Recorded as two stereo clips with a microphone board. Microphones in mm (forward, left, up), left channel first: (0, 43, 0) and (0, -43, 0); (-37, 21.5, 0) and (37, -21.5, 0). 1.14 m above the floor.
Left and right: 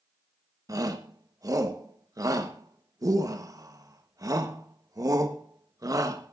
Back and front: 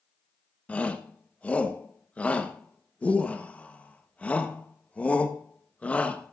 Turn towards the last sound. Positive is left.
turn(degrees=-135)